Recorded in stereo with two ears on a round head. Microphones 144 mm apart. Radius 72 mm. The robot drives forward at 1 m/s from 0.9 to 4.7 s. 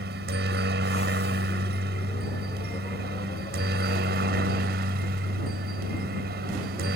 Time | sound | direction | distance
0.0 | a helicopter | 70° right (ahead or behind) | ?